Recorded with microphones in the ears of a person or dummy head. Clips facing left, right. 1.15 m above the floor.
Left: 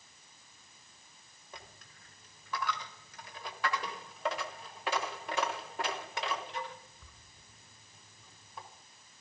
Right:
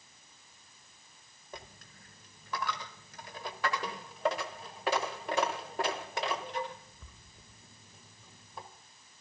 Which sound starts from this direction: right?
A dropped coin, at 1.5 s.